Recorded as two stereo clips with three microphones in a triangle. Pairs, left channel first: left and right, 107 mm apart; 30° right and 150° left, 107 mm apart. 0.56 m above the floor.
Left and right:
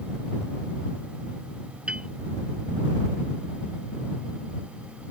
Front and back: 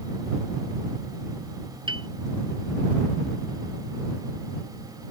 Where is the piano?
170° right.